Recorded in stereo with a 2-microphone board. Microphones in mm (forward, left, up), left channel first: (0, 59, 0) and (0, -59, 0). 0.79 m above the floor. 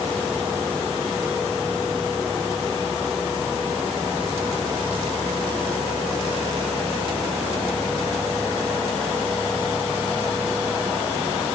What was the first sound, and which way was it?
Only background noise.